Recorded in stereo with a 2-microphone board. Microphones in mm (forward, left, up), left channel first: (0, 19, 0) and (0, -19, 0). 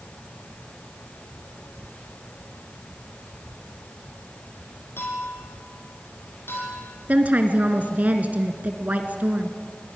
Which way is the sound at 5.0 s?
75° left (ahead or behind).